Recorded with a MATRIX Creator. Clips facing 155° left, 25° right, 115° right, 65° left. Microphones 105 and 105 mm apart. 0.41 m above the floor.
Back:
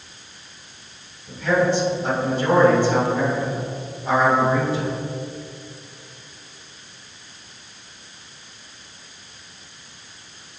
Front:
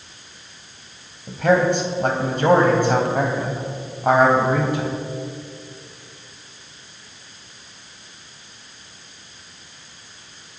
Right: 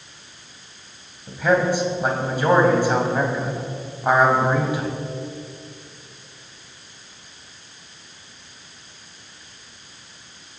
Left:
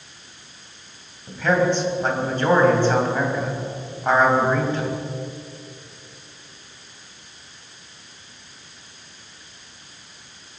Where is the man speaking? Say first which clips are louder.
Front 3 dB, even; 35° right, 3 m.